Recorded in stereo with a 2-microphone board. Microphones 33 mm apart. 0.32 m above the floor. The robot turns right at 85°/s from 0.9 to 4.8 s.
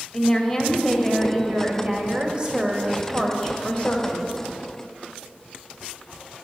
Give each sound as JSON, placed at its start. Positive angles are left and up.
{"t": 0.1, "sound": "a woman speaking", "azimuth_deg": 165, "distance_m": 1.7}